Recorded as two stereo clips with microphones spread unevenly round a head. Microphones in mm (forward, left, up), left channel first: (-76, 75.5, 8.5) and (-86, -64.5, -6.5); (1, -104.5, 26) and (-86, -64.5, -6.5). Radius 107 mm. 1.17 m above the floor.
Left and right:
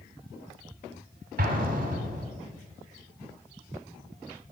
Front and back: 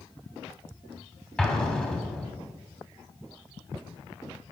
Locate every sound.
1.4 s an explosion: 100° right, 2.5 m